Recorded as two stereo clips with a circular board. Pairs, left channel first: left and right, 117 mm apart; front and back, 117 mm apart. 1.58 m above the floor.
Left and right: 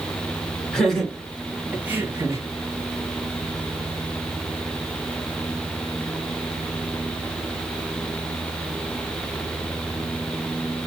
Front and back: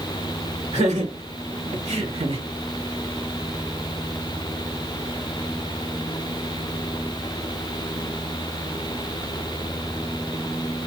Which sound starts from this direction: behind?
Laughter, at 0.7 s.